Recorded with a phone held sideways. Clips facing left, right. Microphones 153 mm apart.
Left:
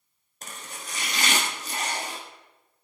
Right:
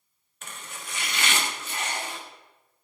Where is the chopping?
40° left (ahead or behind), 1.6 m.